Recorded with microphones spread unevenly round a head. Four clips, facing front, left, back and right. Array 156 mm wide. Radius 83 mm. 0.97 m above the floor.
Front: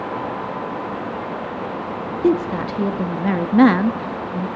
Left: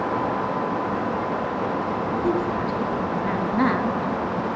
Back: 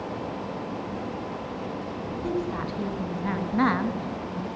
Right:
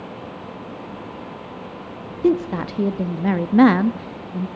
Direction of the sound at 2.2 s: 40° right.